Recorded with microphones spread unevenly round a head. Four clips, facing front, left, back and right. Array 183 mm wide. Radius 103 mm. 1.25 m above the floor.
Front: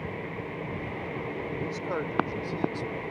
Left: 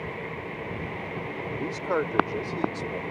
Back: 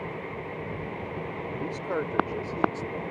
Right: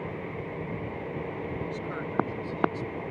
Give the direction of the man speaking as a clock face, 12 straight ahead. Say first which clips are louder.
Left 6 dB, back 3 dB; 9 o'clock.